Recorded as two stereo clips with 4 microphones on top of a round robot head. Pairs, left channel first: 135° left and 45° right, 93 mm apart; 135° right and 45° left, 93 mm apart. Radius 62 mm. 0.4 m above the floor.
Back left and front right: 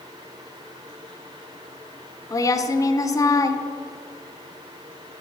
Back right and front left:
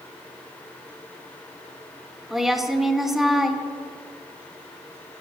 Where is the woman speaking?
130° left, 1.0 m.